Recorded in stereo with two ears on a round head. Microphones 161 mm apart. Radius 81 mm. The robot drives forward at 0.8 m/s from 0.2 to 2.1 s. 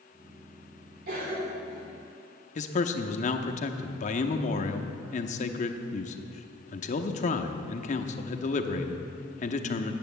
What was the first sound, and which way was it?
A cough, 55° right (ahead or behind).